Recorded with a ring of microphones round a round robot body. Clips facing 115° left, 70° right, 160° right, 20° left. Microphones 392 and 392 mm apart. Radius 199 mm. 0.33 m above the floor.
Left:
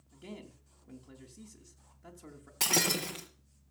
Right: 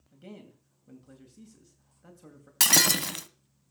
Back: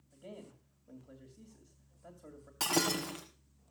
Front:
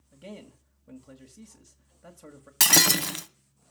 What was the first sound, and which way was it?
A man speaking, 20° left.